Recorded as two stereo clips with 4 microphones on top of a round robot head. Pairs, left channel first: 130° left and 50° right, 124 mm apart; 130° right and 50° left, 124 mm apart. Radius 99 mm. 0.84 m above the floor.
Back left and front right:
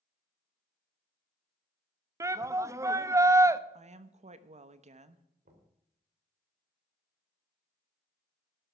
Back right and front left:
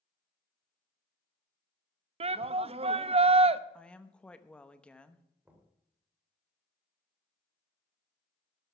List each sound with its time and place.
2.2 s a shout: 15° left, 0.8 m
3.7 s a woman speaking: 50° right, 1.1 m
5.5 s knocking: 25° right, 3 m